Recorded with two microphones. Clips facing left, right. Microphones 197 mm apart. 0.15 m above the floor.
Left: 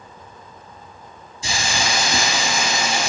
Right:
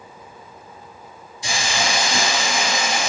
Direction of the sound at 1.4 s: 25° left (ahead or behind).